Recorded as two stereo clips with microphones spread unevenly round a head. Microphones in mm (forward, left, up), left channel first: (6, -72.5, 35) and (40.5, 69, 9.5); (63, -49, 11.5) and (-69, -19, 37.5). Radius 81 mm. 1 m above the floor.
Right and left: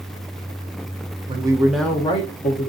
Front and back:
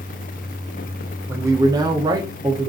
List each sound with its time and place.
1.3 s a man speaking: 90° left, 0.7 m; by 2.7 s 120° right, 0.7 m